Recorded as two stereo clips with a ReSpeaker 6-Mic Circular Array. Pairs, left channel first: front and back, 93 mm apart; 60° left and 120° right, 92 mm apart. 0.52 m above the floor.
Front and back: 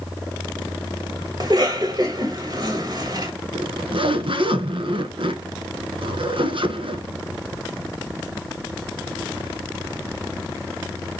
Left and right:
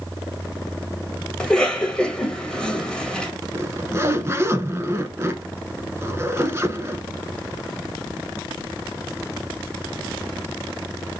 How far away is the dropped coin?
I don't hear a dropped coin.